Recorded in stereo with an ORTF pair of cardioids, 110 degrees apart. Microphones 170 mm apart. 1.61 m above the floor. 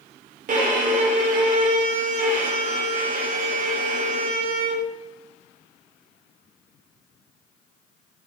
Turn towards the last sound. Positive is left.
turn(degrees=-45)